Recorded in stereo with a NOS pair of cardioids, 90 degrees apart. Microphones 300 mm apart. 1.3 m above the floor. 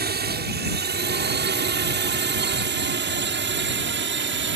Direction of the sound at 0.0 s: 35° right.